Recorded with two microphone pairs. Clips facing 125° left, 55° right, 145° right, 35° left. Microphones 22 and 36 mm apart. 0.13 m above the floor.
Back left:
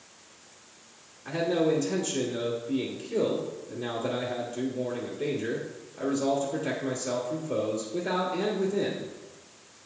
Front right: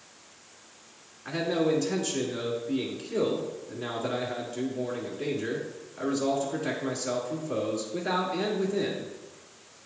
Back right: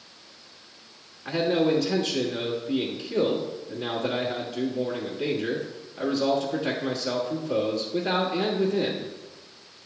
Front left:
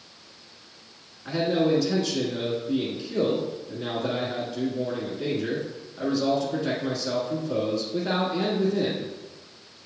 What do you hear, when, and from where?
1.2 s a man speaking: 80° right, 1.5 m